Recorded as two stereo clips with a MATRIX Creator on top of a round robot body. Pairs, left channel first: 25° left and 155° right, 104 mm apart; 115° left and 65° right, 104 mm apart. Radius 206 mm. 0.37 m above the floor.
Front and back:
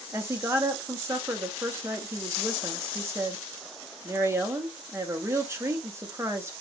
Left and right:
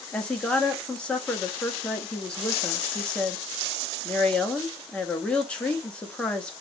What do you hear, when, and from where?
0.1 s a woman speaking: straight behind, 1.4 m